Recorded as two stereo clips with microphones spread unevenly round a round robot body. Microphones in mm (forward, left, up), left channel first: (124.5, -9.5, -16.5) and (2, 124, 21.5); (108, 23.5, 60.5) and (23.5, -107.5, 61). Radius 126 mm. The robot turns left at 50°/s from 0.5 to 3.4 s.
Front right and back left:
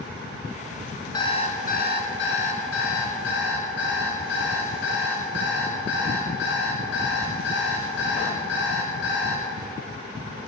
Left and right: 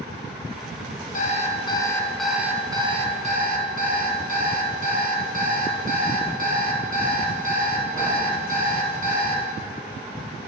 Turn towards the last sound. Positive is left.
turn(degrees=-90)